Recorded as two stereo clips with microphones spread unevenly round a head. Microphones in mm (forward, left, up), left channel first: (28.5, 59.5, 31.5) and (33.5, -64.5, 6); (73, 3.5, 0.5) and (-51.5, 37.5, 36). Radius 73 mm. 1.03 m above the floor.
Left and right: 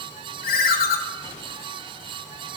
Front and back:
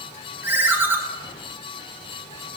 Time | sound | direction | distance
0.4 | a ringtone | 85° left | 0.7 m